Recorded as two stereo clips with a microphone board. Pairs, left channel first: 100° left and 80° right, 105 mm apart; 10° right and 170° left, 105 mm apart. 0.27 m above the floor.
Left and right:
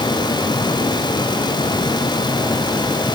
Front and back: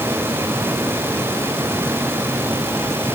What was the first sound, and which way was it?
Only background noise.